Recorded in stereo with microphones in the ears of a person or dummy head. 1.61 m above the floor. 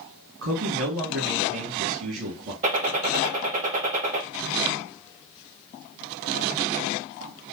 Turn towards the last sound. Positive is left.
turn(degrees=-45)  # may be behind; listen again after turning